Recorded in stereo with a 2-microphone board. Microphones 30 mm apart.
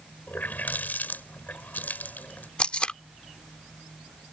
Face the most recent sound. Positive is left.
turn(degrees=40)  # may be behind; listen again after turning